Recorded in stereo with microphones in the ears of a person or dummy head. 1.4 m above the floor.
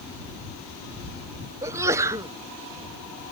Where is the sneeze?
20° right (ahead or behind).